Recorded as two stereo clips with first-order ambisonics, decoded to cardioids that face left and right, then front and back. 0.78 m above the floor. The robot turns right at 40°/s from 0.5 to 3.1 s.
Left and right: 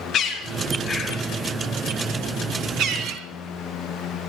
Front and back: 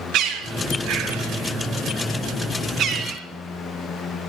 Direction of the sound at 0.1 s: 150° left.